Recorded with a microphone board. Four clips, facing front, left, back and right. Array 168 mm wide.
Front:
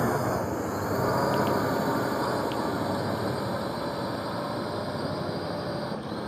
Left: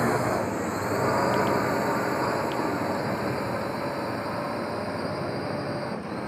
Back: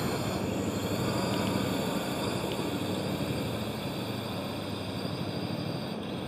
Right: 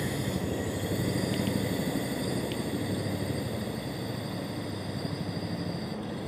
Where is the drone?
60° left; by 6.3 s 55° left.